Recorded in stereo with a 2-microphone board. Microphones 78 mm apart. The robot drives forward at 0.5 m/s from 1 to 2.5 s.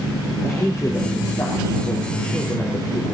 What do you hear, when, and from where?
0.4 s a woman speaking: 45° left (ahead or behind), 4.5 m; by 3.1 s 40° left (ahead or behind), 5 m